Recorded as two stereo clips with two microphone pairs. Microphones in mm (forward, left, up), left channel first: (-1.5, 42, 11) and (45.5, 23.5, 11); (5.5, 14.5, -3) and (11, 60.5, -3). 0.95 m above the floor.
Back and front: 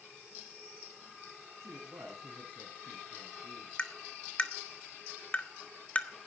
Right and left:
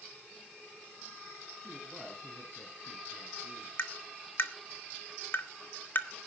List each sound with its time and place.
1.6 s a woman speaking: 15° right, 8.5 m; by 3.7 s 10° right, 8.5 m
3.8 s tapping: 140° right, 1.4 m